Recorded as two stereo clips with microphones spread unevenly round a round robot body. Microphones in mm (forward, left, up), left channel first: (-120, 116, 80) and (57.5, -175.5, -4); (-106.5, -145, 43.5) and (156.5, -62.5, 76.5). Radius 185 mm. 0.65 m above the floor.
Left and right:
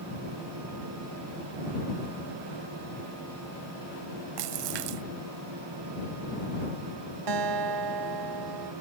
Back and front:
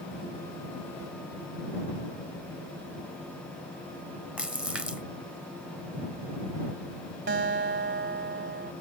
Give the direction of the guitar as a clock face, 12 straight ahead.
1 o'clock.